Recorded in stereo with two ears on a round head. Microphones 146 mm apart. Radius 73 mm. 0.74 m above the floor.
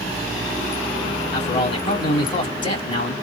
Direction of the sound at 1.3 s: 30° left (ahead or behind).